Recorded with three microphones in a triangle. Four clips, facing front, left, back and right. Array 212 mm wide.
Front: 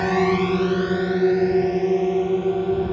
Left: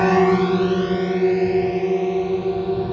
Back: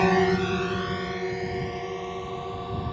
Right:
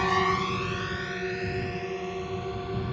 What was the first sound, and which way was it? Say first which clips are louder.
A drone: left 10 dB, front 2 dB; 100° left.